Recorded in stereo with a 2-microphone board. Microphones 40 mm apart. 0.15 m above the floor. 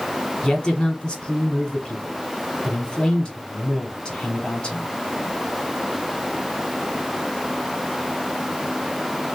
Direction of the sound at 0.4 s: 25° left (ahead or behind).